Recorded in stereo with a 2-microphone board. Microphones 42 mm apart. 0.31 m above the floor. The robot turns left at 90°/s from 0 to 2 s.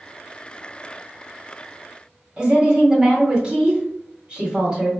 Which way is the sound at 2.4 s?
30° right (ahead or behind).